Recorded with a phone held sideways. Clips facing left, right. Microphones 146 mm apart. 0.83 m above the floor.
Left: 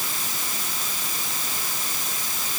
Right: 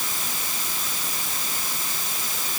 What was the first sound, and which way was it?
Only background noise.